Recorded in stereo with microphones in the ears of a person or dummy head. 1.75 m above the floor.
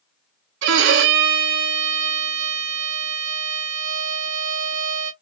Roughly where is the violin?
Right.